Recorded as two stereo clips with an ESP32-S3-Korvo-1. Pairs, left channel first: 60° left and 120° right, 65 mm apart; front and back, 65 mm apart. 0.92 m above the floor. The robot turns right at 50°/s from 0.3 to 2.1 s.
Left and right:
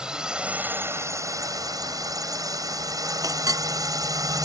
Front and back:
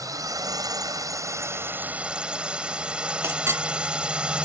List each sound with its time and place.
0.0 s a drone: 160° left; by 4.5 s 110° right
3.2 s a clink: 135° right